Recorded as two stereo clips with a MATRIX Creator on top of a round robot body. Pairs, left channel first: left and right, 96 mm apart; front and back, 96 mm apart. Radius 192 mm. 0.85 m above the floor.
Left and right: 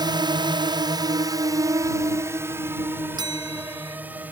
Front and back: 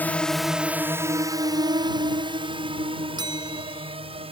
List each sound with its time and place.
0.0 s a drone: 65° right; by 4.3 s 165° right
3.2 s a bell: 135° right